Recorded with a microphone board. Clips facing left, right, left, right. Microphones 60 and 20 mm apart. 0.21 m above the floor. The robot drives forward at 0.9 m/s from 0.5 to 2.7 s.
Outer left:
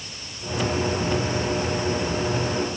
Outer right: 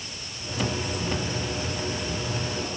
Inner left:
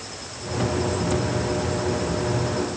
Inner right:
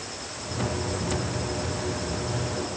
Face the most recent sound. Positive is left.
No sound to turn to.